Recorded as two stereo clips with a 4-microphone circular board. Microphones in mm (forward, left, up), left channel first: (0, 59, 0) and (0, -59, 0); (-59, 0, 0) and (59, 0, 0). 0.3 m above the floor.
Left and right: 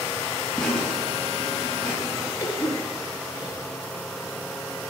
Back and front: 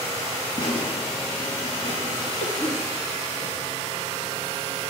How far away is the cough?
About 4 m.